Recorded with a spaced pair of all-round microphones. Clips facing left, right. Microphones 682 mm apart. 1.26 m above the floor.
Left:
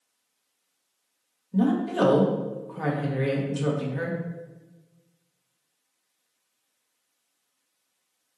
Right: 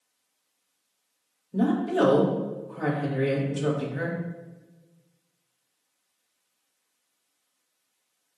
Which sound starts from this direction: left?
A woman speaking, at 1.5 s.